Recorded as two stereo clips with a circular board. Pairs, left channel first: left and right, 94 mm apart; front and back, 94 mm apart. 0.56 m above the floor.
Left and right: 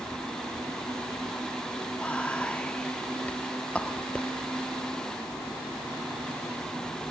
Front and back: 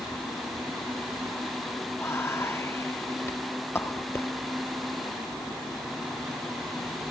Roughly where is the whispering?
Ahead left.